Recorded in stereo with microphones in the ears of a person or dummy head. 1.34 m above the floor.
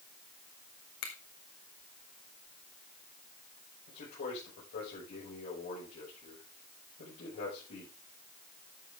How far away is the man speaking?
About 6.5 m.